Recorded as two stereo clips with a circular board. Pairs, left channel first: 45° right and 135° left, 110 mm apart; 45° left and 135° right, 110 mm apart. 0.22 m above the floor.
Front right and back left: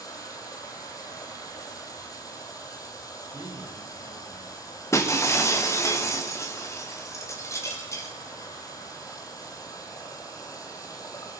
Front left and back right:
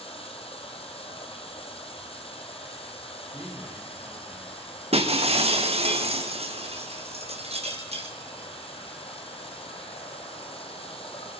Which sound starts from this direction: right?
Breaking glass, at 4.9 s.